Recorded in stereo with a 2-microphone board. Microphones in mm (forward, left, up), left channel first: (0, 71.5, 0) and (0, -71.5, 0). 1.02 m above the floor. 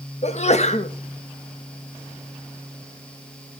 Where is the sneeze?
50° left (ahead or behind), 1.5 m.